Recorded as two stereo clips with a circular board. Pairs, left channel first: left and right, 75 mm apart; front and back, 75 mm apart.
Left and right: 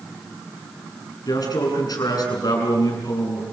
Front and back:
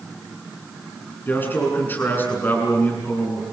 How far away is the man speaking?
About 7.5 m.